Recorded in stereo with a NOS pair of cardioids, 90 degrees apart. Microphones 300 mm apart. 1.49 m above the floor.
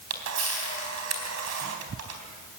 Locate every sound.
0.1 s a camera shutter: 60° right, 4 m